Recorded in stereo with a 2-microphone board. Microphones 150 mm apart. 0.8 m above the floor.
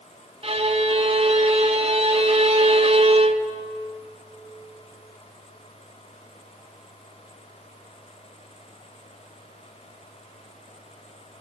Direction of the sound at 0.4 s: 45° right (ahead or behind).